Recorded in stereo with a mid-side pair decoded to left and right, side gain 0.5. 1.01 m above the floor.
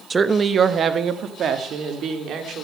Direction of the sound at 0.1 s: 25° right.